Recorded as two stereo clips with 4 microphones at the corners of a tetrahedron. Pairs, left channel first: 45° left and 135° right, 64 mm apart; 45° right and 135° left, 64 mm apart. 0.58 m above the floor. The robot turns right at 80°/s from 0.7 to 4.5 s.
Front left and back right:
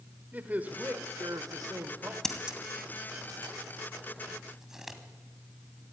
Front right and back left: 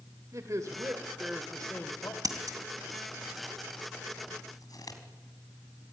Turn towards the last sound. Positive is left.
turn(degrees=-50)